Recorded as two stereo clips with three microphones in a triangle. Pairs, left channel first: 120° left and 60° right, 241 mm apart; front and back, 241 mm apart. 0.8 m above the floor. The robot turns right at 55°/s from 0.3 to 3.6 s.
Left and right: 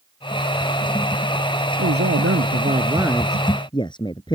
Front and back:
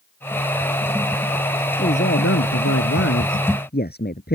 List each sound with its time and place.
1.8 s a man speaking: 50° right; by 4.3 s 50° left